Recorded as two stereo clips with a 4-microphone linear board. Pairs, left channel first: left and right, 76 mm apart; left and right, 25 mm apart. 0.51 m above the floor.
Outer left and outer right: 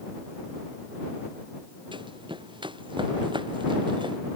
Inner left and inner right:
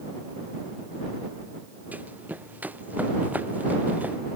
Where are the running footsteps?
90° right; by 4.2 s 80° right.